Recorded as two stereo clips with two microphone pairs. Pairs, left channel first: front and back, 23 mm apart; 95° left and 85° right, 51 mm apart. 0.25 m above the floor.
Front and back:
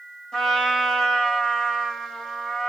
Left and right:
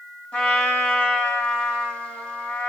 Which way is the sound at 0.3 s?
40° left.